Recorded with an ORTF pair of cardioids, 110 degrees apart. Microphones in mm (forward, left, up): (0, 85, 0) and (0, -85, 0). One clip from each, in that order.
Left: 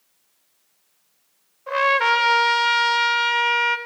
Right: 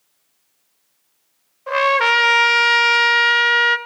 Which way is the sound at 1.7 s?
25° right.